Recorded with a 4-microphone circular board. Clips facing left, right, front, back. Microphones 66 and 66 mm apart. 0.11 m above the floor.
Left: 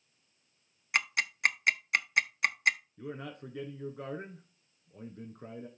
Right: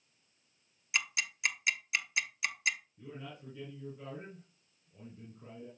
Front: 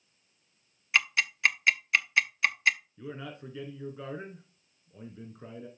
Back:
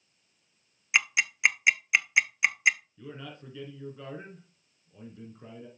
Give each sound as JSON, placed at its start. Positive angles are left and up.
{"t": 0.9, "sound": "ticking", "azimuth_deg": 110, "distance_m": 0.7}
{"t": 3.0, "sound": "a man speaking", "azimuth_deg": 75, "distance_m": 3.5}